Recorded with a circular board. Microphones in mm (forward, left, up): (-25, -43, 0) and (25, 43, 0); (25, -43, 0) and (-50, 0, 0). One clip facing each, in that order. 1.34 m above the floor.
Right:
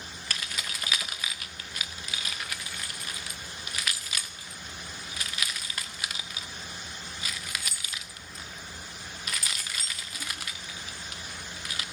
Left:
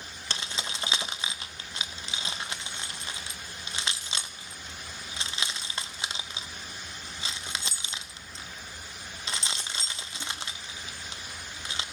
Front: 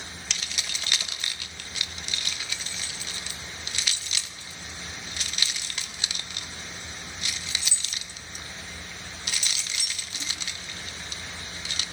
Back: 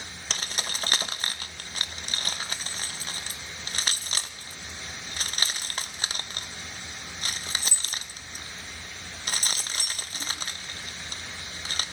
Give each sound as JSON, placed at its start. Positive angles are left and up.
{"t": 0.3, "sound": "keys jangling", "azimuth_deg": 115, "distance_m": 0.7}